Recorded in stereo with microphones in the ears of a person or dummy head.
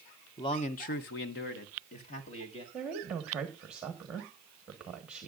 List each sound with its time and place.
0.4 s a man speaking: 20° left (ahead or behind), 0.9 m; by 2.6 s 30° left (ahead or behind), 1.9 m
2.7 s a woman speaking: 5° right (ahead or behind), 1.3 m